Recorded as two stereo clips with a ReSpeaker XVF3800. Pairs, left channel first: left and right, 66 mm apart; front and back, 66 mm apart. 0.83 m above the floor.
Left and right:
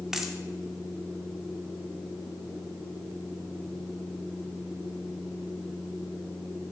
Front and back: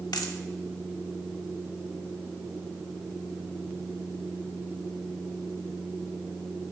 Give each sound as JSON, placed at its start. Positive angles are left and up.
{"t": 0.1, "sound": "a dropped coin", "azimuth_deg": -10, "distance_m": 1.0}